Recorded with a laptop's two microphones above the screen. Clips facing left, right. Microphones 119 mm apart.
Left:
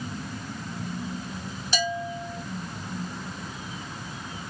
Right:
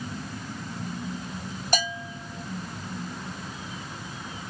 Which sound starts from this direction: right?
A bell, at 1.7 s.